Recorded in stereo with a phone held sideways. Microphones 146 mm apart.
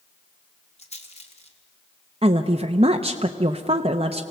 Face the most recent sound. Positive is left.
turn(degrees=-40)  # may be behind; listen again after turning